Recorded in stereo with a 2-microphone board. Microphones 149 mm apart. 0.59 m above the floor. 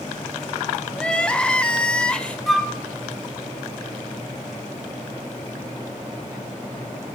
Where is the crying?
5° left (ahead or behind), 0.7 m.